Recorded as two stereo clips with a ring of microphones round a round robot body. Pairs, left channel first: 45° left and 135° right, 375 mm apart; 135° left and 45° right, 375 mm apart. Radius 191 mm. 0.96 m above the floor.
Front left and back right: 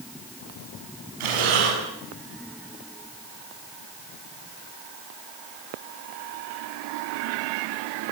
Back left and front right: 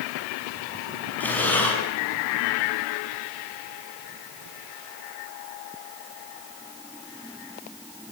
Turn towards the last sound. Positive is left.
turn(degrees=-140)